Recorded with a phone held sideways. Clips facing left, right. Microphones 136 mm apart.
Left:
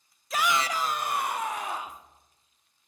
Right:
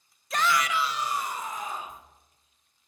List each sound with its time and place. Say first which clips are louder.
0.3 s a shout: right 1 dB; centre (ahead or behind), 0.5 m; by 2.0 s 80° left, 1.6 m